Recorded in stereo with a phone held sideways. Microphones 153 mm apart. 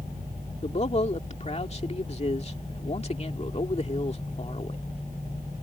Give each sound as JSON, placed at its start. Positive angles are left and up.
{"t": 0.6, "sound": "a man speaking", "side_deg": 45}